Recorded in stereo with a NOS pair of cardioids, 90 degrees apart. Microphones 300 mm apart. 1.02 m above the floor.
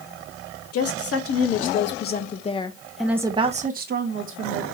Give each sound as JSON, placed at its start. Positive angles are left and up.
{"t": 0.7, "sound": "a woman speaking", "azimuth_deg": 65, "distance_m": 1.5}